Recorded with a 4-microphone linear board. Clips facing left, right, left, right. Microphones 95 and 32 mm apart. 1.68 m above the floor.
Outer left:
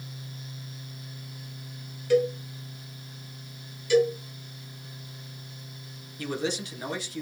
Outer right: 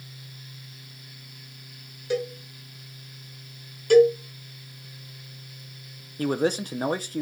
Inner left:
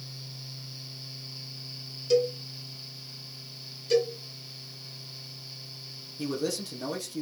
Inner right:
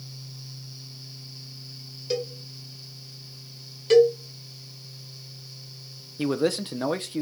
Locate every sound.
2.1 s a cowbell: 20° right (ahead or behind), 2.5 m
3.9 s a cowbell: 55° right (ahead or behind), 2.5 m
6.2 s a man speaking: 45° right (ahead or behind), 0.9 m